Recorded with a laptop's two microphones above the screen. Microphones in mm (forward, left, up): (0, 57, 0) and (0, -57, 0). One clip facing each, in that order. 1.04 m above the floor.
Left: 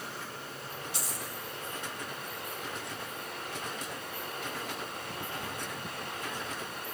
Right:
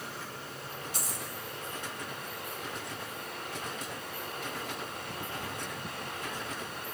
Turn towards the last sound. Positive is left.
turn(degrees=-45)  # may be behind; listen again after turning